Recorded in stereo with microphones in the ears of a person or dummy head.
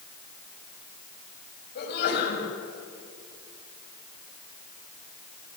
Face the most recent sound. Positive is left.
turn(degrees=60)  # may be behind; listen again after turning